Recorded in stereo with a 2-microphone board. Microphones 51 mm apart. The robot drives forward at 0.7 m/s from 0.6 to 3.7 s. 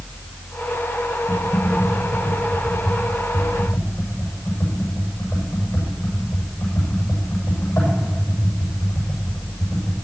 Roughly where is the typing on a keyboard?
Left.